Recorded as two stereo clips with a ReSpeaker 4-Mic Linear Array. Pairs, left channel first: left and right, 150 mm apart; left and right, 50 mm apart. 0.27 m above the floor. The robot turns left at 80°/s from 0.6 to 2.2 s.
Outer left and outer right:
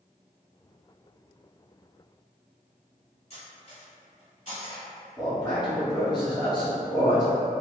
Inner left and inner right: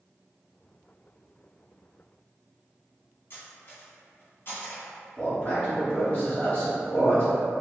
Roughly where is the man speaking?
Left.